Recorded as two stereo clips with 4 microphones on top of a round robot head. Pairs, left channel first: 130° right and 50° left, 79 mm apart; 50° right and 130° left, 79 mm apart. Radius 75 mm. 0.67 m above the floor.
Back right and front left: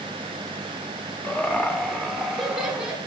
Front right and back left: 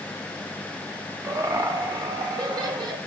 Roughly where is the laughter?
Behind.